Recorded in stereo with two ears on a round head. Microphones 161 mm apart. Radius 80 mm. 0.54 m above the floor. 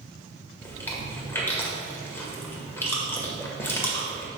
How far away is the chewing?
About 1.8 m.